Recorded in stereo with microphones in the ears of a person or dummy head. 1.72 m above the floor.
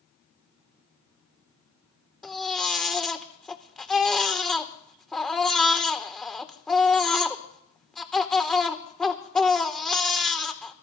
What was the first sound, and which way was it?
A baby crying, 5° left (ahead or behind).